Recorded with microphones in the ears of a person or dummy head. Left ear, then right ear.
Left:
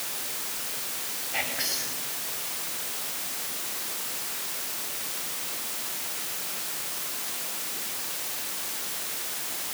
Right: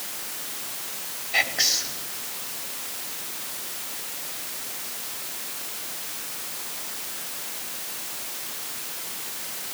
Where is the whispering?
45° right (ahead or behind), 5 m.